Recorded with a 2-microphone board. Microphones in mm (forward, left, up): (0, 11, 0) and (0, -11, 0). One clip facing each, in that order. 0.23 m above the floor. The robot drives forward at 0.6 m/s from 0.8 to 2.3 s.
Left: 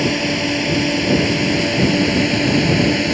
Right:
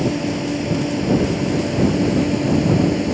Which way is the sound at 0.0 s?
55° left (ahead or behind).